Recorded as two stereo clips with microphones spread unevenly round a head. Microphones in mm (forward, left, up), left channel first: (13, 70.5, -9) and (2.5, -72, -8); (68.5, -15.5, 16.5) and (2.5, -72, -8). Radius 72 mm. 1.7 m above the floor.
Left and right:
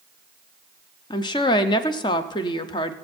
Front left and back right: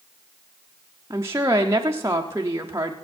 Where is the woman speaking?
150° left, 0.8 m.